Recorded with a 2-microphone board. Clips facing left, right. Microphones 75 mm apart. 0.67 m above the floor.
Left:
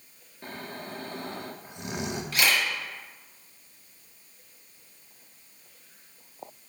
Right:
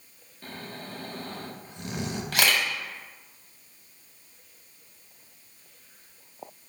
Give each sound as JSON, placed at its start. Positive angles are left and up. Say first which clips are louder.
{"t": 0.4, "sound": "snoring", "louder": "left 1 dB", "side_deg": 15, "distance_m": 0.5}
{"t": 2.3, "sound": "a camera shutter", "louder": "right 1 dB", "side_deg": -70, "distance_m": 1.0}